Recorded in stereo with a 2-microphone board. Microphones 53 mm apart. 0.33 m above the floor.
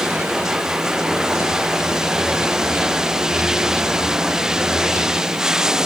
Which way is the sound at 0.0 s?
10° right (ahead or behind).